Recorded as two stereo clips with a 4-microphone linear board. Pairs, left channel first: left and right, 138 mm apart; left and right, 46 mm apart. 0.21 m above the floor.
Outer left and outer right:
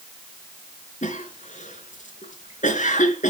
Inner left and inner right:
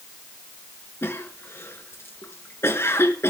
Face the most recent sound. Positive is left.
turn(degrees=65)  # may be behind; listen again after turning